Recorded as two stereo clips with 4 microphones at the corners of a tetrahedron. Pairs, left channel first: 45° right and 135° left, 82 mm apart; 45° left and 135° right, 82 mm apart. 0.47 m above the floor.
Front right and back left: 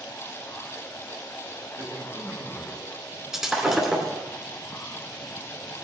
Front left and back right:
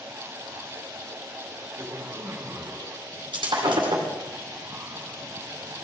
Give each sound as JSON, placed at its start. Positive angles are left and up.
{"t": 1.8, "sound": "a man speaking", "azimuth_deg": 175, "distance_m": 3.0}
{"t": 3.3, "sound": "breaking glass", "azimuth_deg": -140, "distance_m": 2.0}